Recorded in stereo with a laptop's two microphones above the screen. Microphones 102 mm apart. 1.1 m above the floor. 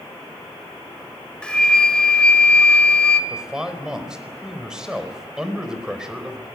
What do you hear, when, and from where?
1.4 s a flute: 10° left (ahead or behind), 1.9 m
3.3 s a man speaking: 5° right (ahead or behind), 4 m